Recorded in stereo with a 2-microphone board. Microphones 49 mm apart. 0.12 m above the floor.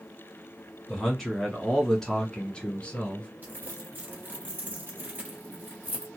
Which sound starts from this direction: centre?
A man speaking, at 0.9 s.